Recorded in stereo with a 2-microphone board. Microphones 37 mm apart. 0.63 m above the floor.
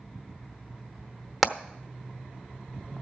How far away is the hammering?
About 0.9 m.